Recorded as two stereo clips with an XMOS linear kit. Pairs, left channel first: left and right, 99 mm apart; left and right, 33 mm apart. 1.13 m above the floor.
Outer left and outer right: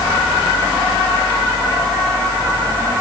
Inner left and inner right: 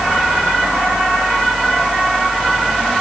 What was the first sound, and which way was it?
Only background noise.